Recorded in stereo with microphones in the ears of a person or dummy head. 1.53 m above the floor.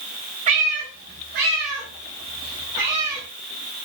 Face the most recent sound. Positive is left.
turn(degrees=-25)  # may be behind; listen again after turning